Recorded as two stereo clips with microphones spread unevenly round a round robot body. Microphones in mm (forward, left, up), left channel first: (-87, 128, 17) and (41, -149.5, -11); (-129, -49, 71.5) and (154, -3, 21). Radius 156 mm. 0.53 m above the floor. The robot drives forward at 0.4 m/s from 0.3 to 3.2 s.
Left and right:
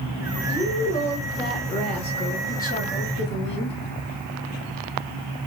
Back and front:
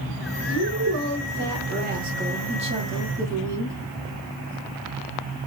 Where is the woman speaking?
30° left, 1.8 m; by 3.8 s 70° left, 1.2 m.